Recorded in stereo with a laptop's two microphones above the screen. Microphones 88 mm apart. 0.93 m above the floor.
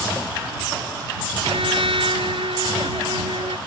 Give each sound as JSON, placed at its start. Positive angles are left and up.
{"t": 1.4, "sound": "a trumpet", "side_deg": -85}